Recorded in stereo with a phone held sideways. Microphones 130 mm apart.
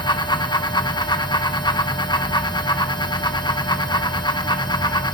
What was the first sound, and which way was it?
A fan, 35° left (ahead or behind).